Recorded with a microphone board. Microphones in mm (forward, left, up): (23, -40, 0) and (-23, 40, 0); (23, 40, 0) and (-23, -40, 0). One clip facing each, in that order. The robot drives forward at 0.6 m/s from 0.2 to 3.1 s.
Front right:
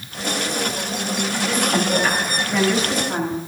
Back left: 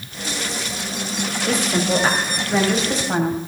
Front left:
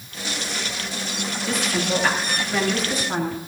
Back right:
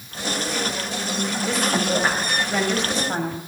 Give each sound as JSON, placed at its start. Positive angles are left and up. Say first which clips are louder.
{"t": 1.5, "sound": "a woman speaking", "louder": "back left 1 dB, back right 1 dB", "azimuth_deg": 175, "distance_m": 3.0}